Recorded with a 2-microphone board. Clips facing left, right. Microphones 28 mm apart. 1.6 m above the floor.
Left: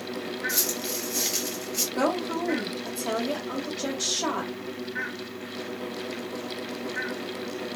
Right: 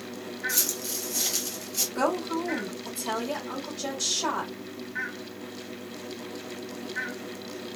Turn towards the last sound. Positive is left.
turn(degrees=20)  # may be behind; listen again after turning